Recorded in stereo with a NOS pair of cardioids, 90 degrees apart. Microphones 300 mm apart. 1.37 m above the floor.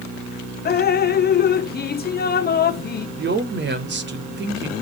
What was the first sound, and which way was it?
Dripping, 35° left.